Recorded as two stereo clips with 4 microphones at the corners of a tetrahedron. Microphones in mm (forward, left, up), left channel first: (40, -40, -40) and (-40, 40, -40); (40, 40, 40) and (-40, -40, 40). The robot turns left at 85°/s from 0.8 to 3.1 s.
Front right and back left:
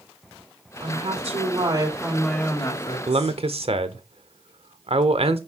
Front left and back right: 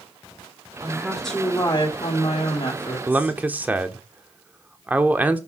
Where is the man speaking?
155° left, 1.3 m; by 5.4 s 150° left, 1.3 m.